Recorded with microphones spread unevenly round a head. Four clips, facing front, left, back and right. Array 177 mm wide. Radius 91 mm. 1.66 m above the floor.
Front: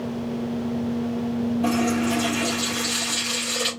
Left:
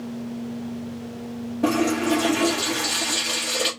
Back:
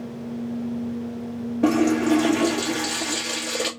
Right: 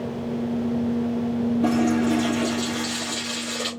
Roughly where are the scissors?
I don't hear scissors.